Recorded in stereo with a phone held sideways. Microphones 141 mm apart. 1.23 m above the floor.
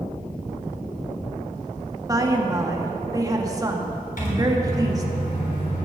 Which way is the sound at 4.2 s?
80° left.